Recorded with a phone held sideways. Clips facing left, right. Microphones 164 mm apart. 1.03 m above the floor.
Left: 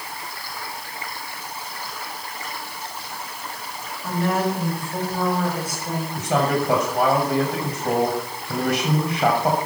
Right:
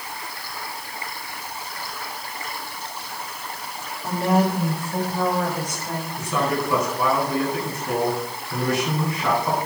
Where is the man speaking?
85° left, 6.5 m.